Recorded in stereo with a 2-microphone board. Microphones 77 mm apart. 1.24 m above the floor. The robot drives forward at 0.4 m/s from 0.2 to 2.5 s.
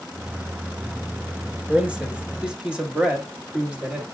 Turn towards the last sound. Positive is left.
turn(degrees=-10)  # may be behind; listen again after turning